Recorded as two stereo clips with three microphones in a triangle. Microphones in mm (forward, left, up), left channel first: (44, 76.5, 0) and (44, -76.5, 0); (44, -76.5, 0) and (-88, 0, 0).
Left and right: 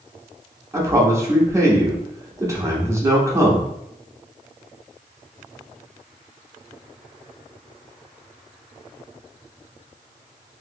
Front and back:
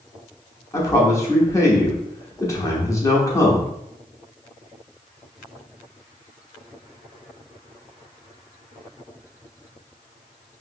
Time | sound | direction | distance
0.7 | a man speaking | 60° right | 0.8 m